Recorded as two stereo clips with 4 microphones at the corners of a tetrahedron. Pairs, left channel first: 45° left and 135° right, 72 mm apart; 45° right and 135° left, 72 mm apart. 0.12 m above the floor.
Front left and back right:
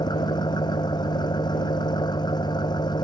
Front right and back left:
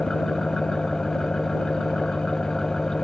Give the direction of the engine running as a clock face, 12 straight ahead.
11 o'clock.